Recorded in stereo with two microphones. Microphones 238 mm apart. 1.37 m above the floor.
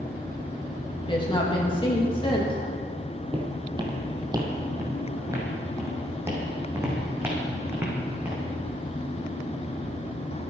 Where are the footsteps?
20° right (ahead or behind), 2 m; by 8.4 s 5° right (ahead or behind), 5 m.